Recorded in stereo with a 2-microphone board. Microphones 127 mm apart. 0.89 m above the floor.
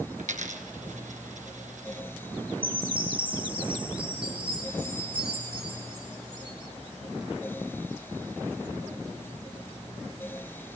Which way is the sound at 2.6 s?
45° right (ahead or behind).